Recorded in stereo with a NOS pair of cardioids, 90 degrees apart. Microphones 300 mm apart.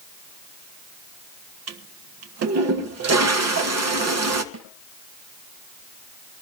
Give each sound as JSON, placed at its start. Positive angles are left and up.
{"t": 1.7, "sound": "a toilet flushing", "azimuth_deg": -60, "distance_m": 1.5}
{"t": 4.5, "sound": "a snare drum", "azimuth_deg": -65, "distance_m": 4.5}